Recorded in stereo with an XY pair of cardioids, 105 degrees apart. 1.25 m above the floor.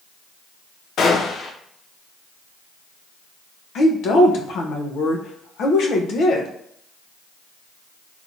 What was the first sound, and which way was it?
A gunshot, 65° left.